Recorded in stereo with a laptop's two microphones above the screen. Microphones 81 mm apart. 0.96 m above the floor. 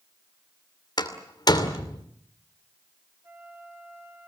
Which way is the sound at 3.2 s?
30° right (ahead or behind).